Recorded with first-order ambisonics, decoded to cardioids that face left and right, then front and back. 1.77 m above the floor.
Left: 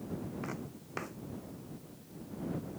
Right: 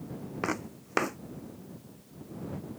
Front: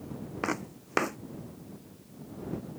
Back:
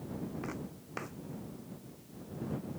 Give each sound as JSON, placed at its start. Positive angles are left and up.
{"t": 0.4, "sound": "footsteps", "azimuth_deg": -45}